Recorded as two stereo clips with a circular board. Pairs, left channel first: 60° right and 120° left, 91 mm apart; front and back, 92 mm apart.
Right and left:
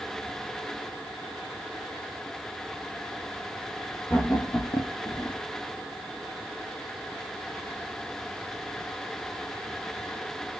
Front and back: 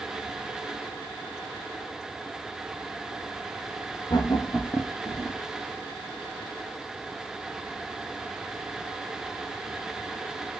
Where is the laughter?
15° left, 1.0 m; by 5.4 s 120° right, 1.3 m.